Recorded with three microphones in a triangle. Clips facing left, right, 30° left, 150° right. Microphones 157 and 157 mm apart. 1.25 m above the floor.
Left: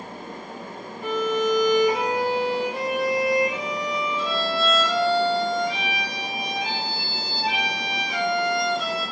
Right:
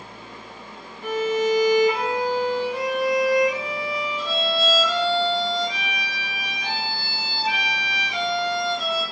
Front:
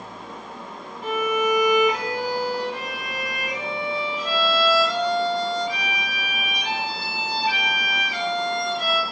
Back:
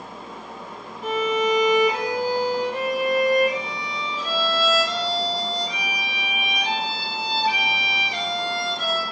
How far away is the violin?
About 1.2 m.